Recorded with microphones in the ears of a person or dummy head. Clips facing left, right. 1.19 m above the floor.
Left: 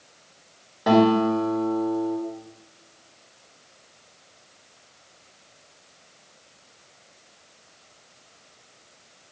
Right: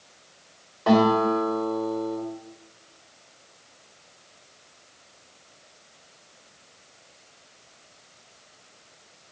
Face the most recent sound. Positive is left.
turn(degrees=15)  # may be behind; listen again after turning